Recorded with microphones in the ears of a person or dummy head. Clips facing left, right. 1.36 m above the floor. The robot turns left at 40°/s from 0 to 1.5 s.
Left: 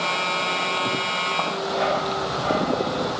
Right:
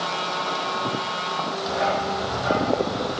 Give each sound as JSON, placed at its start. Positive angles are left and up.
{"t": 1.7, "sound": "a dog barking", "side_deg": 0, "distance_m": 3.0}